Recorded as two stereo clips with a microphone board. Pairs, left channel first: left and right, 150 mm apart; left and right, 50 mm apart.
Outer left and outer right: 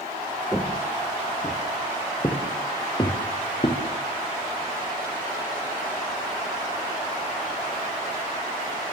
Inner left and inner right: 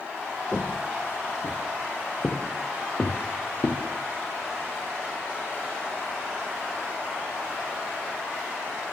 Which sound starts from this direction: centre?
Footsteps, at 0.5 s.